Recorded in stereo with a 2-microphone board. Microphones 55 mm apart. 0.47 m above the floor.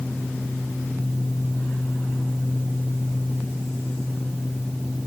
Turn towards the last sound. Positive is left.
No sound to turn to.